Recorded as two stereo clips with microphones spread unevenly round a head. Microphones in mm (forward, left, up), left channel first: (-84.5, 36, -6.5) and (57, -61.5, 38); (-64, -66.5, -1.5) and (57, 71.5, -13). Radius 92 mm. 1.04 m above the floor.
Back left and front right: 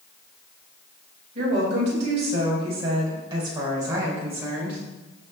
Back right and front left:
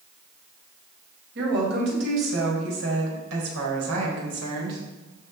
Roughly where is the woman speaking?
Ahead.